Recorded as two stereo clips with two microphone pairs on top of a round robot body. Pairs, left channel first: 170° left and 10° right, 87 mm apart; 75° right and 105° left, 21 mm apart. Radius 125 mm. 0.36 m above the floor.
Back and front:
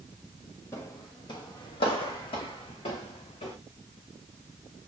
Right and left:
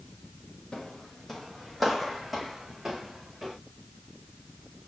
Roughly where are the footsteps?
Behind right.